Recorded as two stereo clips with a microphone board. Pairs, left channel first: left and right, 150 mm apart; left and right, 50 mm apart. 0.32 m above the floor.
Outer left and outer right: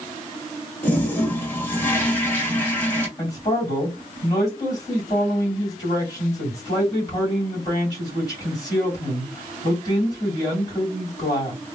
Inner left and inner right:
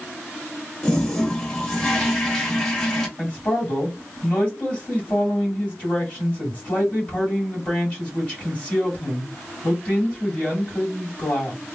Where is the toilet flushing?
15° left (ahead or behind), 1.4 m.